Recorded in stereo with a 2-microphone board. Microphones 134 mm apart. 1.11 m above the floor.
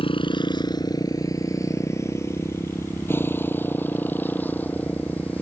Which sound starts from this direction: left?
A motorcycle, at 0.0 s.